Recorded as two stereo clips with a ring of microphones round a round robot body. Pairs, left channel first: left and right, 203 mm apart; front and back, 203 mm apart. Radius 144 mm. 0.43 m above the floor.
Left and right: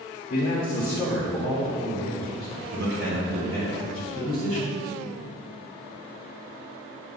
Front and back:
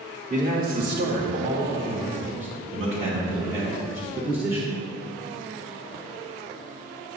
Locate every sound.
0.3 s a man speaking: 135° left, 1.0 m; by 4.7 s 105° right, 2.5 m